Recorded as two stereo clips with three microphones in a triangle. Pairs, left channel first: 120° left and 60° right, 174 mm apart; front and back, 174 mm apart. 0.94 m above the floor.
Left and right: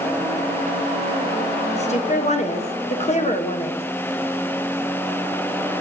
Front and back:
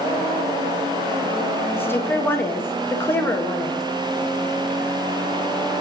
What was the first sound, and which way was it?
A woman speaking, 75° left.